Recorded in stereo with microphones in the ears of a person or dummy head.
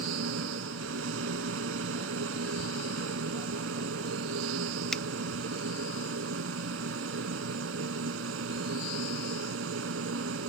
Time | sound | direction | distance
0.0 | a machine running | 85° right | ?
4.9 | a finger snap | 5° left (ahead or behind) | ?